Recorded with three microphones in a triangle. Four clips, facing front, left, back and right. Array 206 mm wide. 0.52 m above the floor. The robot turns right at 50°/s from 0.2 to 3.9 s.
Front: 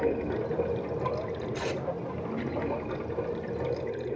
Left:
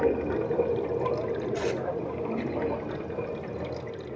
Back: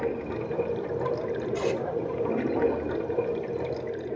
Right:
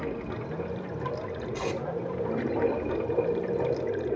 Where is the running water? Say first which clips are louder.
Left 8 dB, front 1 dB; 90° left, 0.9 m; by 4.2 s 85° right, 0.9 m.